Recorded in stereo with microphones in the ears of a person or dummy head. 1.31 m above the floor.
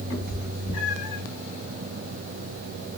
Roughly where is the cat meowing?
Left.